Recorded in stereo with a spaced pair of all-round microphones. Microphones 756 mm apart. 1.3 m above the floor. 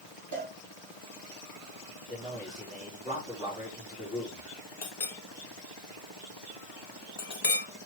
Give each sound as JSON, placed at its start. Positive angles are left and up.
{"t": 0.3, "sound": "a cowbell", "side_deg": 0, "distance_m": 4.0}
{"t": 2.1, "sound": "a man speaking", "side_deg": 10, "distance_m": 5.0}
{"t": 4.8, "sound": "a clink", "side_deg": 60, "distance_m": 1.3}